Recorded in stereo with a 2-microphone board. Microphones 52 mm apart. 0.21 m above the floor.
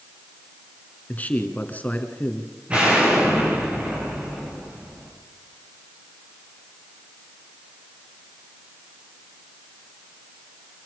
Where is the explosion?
25° right (ahead or behind), 9.5 m.